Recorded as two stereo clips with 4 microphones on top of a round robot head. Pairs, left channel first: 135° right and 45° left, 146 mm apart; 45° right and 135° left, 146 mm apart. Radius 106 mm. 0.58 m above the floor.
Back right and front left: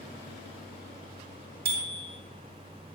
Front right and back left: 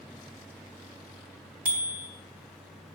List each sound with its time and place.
1.6 s a bicycle bell: 55° left, 3.5 m